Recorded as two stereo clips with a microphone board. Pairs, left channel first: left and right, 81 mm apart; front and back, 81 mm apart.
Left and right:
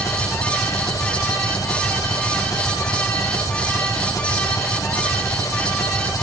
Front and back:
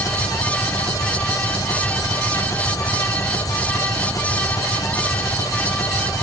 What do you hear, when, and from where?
0.0 s an engine running: 45° left